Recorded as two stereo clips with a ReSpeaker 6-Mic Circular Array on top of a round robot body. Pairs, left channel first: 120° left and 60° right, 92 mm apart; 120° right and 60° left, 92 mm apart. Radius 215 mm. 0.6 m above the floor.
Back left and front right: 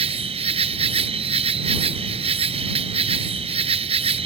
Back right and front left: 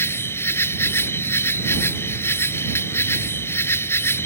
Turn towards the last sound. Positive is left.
turn(degrees=-55)